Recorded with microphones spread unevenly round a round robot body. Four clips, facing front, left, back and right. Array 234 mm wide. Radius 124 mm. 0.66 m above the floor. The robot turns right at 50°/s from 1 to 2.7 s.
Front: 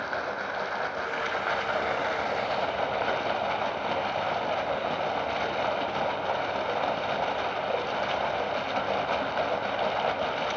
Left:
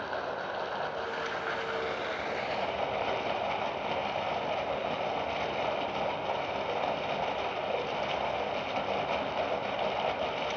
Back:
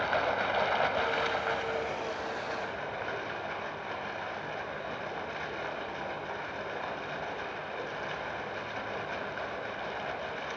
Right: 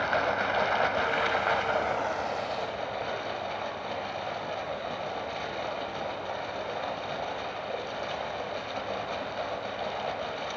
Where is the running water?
80° right, 1.3 m; by 10.6 s 5° left, 1.3 m.